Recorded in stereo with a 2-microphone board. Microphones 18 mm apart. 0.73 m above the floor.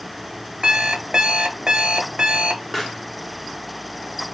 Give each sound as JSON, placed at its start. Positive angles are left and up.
{"t": 0.6, "sound": "an alarm clock", "side_deg": -70, "distance_m": 1.1}
{"t": 2.7, "sound": "a pop", "side_deg": 0, "distance_m": 1.0}